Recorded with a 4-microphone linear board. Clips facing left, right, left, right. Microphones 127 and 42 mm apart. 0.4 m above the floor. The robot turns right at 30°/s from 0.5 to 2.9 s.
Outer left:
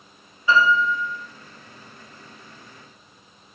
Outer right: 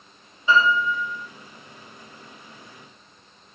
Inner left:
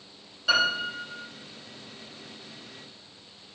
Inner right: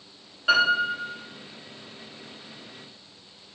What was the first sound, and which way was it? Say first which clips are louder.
A piano: outer left 1 dB, inner right 4 dB; 25° right (ahead or behind).